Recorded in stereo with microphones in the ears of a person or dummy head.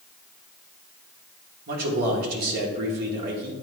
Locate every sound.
1.7 s a man speaking: 55° right (ahead or behind), 1.4 m